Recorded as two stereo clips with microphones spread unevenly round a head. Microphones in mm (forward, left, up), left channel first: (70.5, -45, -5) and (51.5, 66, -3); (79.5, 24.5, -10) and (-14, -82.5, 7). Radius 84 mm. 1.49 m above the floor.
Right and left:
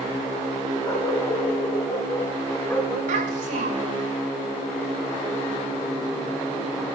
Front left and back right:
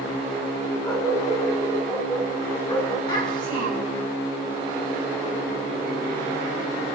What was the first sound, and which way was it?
A dog barking, 20° right.